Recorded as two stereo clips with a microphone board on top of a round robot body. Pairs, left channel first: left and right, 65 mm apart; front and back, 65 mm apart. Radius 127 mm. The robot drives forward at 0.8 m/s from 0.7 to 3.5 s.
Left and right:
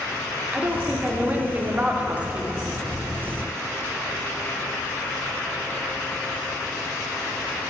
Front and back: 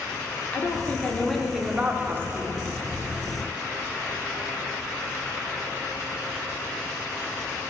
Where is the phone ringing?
No phone ringing in this recording.